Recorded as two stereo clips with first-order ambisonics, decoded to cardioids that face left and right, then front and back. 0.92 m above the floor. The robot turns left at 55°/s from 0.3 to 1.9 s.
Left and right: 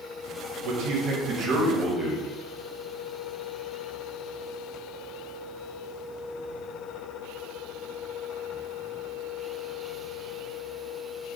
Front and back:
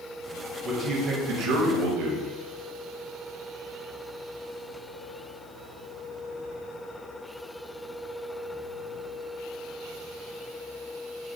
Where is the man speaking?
110° right, 1.1 m; by 2.3 s straight behind, 1.1 m.